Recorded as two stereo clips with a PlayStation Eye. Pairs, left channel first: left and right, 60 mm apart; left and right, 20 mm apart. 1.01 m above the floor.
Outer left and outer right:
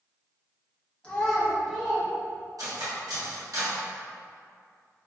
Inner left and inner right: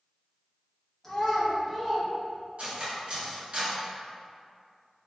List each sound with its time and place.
1.0 s a child speaking: 15° left (ahead or behind), 1.2 m; by 2.1 s 15° right (ahead or behind), 1.3 m
2.6 s cutlery clinking: 70° right (ahead or behind), 1.2 m